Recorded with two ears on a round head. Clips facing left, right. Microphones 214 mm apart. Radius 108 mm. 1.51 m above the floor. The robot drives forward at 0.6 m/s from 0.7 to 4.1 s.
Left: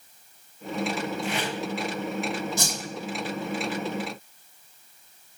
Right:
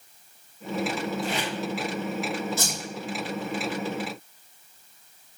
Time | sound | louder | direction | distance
1.2 | tape being pulled | even | 35° right (ahead or behind) | 3.5 m
2.6 | a whoosh | even | 15° left (ahead or behind) | 4 m